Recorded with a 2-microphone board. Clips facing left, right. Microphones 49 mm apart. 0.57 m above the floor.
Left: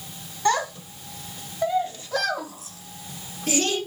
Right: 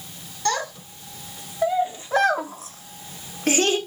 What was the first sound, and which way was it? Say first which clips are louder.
A child speaking: left 3 dB; 20° left (ahead or behind).